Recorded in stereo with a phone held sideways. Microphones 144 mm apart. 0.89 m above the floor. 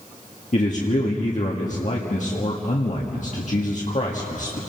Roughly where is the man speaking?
Left.